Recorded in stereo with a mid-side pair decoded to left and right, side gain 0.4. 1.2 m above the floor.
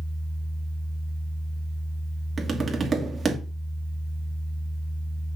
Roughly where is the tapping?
Ahead right.